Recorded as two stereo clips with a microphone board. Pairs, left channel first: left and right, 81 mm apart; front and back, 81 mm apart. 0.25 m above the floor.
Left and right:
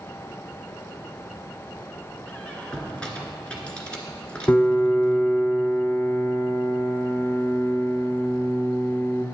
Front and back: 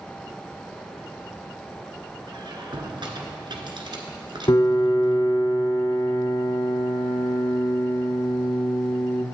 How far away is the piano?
About 0.6 m.